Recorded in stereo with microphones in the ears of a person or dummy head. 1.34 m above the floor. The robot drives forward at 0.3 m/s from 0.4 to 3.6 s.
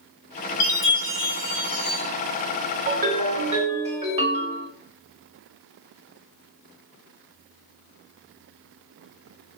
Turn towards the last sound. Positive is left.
turn(degrees=-30)  # may be behind; listen again after turning